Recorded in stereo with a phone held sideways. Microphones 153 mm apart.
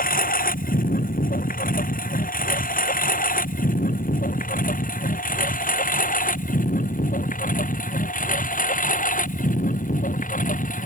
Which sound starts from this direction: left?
A lawn mower, at 0.0 s.